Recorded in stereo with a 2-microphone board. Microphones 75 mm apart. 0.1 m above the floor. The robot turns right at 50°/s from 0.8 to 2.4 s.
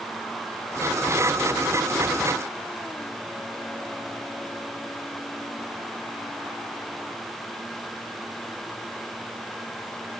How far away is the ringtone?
No ringtone in this recording.